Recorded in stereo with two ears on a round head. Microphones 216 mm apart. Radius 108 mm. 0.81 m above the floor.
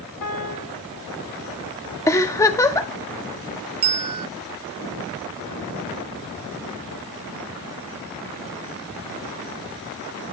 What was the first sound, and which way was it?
A piano, 75° left (ahead or behind).